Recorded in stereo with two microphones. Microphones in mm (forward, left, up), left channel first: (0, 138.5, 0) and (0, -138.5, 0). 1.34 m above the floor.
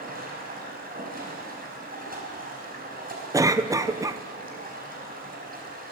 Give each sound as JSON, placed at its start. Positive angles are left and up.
{"t": 0.0, "sound": "running water", "side_deg": -30, "distance_m": 5.0}
{"t": 3.3, "sound": "a cough", "side_deg": -10, "distance_m": 0.8}